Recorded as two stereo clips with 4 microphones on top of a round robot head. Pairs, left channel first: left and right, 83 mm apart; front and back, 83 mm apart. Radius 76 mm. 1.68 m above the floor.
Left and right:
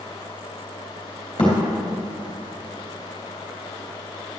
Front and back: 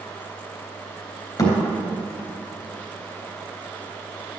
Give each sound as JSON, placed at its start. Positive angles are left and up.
{"t": 1.4, "sound": "a thud", "azimuth_deg": 40, "distance_m": 3.5}